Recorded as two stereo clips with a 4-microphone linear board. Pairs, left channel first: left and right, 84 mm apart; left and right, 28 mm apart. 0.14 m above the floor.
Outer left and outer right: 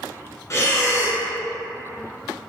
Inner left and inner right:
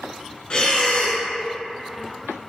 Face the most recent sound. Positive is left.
turn(degrees=40)  # may be behind; listen again after turning